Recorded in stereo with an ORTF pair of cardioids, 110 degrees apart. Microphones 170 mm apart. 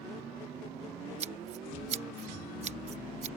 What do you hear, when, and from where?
1.2 s scissors: 45° right